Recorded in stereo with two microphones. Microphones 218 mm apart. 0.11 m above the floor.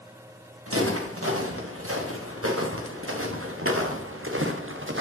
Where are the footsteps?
85° right, 3.5 m; by 5.0 s 65° right (ahead or behind), 1.6 m.